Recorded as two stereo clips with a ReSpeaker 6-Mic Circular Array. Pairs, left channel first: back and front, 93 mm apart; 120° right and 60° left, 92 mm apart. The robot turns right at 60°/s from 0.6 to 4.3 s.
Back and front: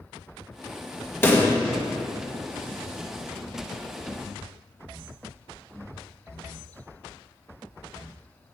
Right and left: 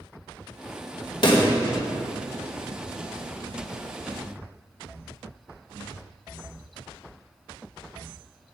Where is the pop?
120° right, 1.2 m; by 1.5 s 100° right, 1.2 m.